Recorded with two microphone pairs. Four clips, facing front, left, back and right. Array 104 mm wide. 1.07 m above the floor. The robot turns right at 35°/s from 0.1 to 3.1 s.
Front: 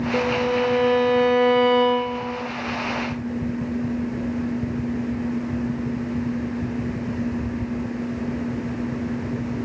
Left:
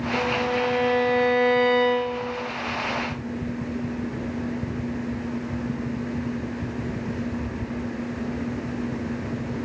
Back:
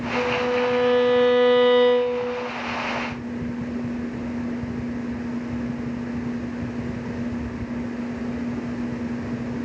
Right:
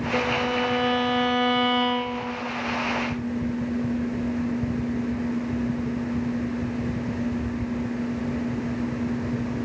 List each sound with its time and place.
0.1 s a violin: 115° right, 2.5 m; by 2.5 s 35° right, 2.5 m